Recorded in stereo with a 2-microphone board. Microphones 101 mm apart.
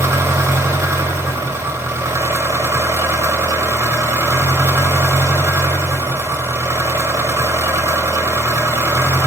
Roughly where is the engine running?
Right.